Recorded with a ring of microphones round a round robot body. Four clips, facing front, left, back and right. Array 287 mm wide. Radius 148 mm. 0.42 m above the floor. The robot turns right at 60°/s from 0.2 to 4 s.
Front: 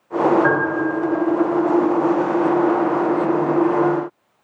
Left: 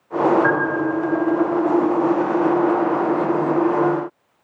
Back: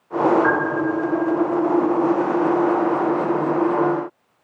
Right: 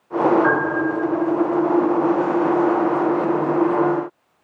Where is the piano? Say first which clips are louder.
Even, front 1 dB; 40° left, 1.0 m; by 0.8 s 65° left, 1.0 m.